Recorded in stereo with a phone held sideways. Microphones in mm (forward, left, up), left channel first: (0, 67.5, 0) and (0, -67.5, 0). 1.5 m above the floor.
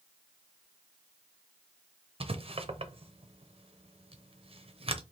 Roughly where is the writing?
Right.